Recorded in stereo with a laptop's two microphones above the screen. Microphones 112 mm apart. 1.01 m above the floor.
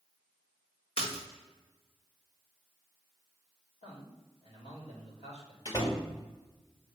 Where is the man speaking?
75° left (ahead or behind), 3 m.